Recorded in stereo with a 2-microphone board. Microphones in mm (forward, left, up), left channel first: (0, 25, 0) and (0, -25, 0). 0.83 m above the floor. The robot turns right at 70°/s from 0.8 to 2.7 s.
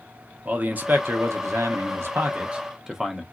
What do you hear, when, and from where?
0.5 s a man speaking: 145° right, 0.8 m; by 3.2 s 10° right, 0.8 m